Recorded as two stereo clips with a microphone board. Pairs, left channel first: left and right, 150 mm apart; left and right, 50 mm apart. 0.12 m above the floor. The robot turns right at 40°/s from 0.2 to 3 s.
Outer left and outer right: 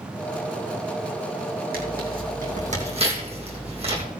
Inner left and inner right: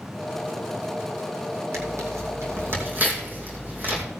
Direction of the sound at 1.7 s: 80° right.